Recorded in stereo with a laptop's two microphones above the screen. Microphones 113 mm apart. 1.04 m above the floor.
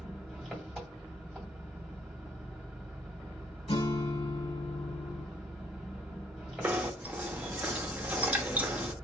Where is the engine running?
Centre (ahead or behind), 1.9 m.